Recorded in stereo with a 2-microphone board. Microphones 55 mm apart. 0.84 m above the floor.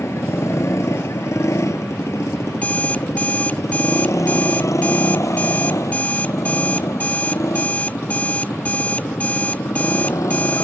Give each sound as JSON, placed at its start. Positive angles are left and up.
{"t": 0.0, "sound": "a motorcycle", "side_deg": 65}
{"t": 2.5, "sound": "an alarm clock", "side_deg": 30}